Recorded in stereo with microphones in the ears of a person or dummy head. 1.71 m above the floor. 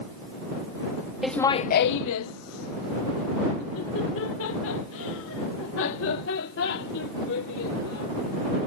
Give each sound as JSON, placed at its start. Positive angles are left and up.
{"t": 1.2, "sound": "laughter", "side_deg": 0}